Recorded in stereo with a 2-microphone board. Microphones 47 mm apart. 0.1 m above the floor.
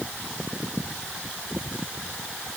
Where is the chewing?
I don't hear chewing.